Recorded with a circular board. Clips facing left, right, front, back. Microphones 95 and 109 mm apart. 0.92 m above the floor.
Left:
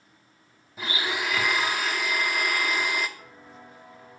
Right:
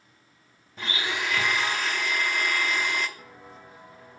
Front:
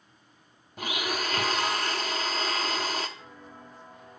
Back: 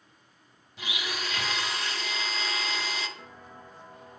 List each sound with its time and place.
0.8 s a blender: 10° left, 0.8 m
3.2 s footsteps: 125° right, 3 m; by 4.2 s 120° right, 3 m